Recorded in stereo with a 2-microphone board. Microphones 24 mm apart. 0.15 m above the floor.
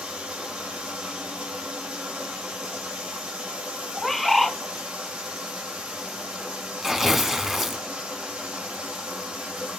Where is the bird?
5° left (ahead or behind), 1.3 m.